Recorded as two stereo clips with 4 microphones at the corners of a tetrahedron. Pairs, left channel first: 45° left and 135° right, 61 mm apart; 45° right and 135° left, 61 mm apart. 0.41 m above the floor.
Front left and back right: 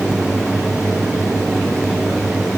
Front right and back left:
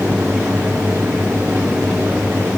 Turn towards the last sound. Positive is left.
No sound to turn to.